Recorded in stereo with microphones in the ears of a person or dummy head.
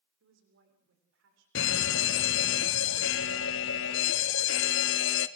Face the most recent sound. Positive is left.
turn(degrees=70)  # may be behind; listen again after turning